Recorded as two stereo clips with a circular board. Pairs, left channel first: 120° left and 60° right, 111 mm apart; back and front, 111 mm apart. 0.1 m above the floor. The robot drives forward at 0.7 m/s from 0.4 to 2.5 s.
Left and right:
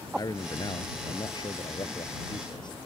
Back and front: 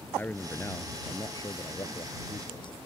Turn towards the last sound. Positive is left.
turn(degrees=155)